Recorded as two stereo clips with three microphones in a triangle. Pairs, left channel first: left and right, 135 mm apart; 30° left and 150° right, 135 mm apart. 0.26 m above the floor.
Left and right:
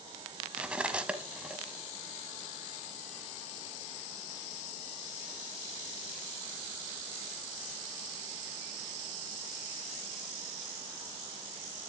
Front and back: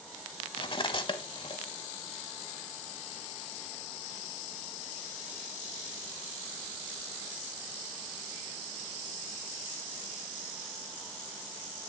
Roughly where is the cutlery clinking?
Ahead.